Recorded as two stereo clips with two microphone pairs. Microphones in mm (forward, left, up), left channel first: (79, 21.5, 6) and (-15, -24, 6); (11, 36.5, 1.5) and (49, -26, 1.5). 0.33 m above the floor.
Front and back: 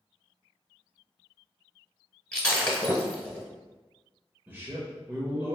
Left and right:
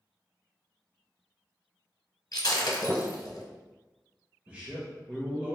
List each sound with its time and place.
2.3 s breaking glass: 105° left, 0.9 m
4.5 s a man speaking: 100° right, 0.9 m